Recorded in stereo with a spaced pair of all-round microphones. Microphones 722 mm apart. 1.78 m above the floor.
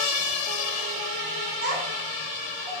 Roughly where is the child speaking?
Right.